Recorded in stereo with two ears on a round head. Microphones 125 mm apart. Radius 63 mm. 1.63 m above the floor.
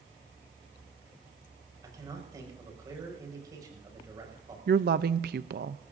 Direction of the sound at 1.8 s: 30° right (ahead or behind).